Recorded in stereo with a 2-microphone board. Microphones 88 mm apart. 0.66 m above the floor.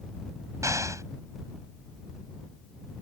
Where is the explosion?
35° right (ahead or behind).